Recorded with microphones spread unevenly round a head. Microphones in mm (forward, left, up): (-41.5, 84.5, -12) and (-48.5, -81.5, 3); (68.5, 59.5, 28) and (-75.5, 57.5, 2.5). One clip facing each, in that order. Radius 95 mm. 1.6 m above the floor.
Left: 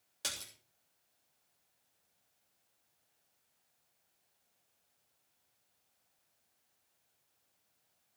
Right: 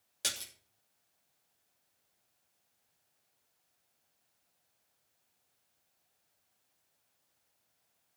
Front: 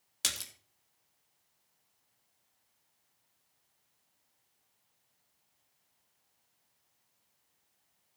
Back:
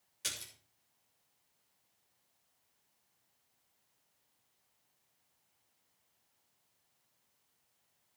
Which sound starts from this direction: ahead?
A splash, at 0.2 s.